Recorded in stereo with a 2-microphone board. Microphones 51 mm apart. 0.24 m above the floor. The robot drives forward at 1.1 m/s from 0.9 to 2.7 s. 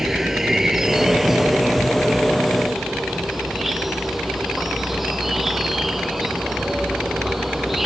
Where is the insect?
10° right (ahead or behind); by 7.9 s 5° right (ahead or behind).